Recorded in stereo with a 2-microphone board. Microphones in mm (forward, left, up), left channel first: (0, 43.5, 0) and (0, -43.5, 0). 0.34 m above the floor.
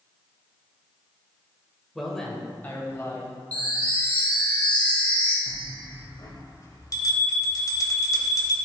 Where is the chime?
15° left (ahead or behind), 2 m.